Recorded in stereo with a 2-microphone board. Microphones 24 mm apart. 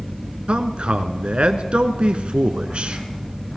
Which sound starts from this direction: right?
A man speaking, at 0.5 s.